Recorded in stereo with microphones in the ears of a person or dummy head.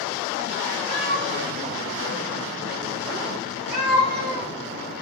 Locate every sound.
0.9 s a cat meowing: 45° right (ahead or behind), 1.2 m; by 4.5 s 55° right (ahead or behind), 3 m